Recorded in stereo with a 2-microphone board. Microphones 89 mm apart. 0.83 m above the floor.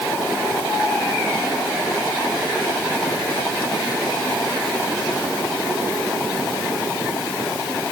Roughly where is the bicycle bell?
I don't hear a bicycle bell.